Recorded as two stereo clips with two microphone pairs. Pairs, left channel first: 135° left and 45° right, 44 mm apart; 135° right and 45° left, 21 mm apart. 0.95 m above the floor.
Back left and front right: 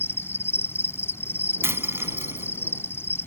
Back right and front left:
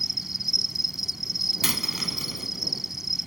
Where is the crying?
I don't hear crying.